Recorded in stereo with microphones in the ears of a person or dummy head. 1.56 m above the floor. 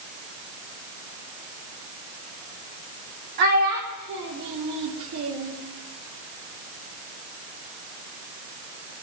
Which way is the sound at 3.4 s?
55° right (ahead or behind).